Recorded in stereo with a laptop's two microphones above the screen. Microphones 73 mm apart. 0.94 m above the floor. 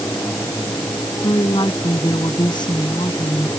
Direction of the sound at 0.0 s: 35° left (ahead or behind).